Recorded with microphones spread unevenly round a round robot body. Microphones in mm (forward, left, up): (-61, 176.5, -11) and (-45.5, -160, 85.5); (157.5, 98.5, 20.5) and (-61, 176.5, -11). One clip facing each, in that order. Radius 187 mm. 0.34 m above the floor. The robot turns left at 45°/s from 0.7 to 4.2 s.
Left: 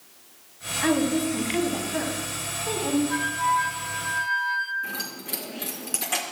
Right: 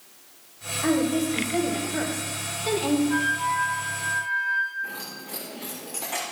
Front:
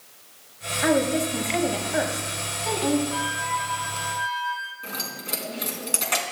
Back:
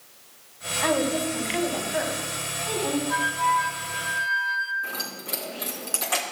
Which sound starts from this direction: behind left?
A flute, at 3.1 s.